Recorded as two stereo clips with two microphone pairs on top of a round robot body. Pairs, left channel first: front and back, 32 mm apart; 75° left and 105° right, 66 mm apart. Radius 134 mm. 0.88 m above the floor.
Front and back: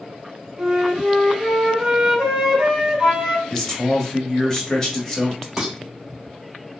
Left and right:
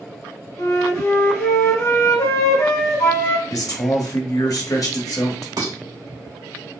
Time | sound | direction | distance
0.6 | a flute | 120° left | 1.2 m
3.5 | a man speaking | 75° left | 1.4 m
5.6 | dishes clattering | 90° right | 2 m